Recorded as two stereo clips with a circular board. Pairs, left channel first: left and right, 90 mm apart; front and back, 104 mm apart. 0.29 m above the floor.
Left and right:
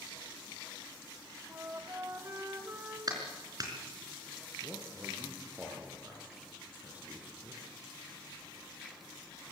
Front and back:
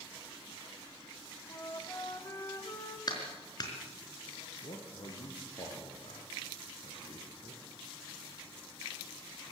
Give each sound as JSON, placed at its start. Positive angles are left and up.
{"t": 1.5, "sound": "a flute", "azimuth_deg": -45, "distance_m": 1.4}
{"t": 3.1, "sound": "a clap", "azimuth_deg": -45, "distance_m": 4.0}
{"t": 4.6, "sound": "a man speaking", "azimuth_deg": -20, "distance_m": 4.0}